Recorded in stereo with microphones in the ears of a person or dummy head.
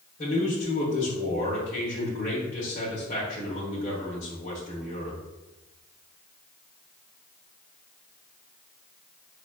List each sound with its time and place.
0.2 s a man speaking: 40° left (ahead or behind), 1.3 m